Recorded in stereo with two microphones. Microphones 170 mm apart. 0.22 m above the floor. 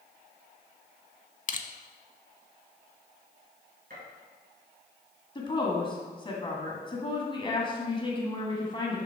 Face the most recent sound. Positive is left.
turn(degrees=30)  # may be behind; listen again after turning